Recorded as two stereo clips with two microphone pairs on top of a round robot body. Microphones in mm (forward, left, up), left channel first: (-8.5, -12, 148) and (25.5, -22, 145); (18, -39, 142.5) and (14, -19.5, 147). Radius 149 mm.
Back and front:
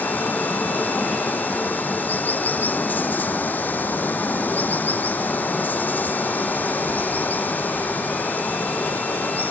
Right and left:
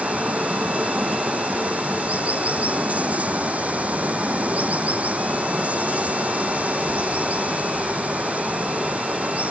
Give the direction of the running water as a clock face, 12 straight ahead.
8 o'clock.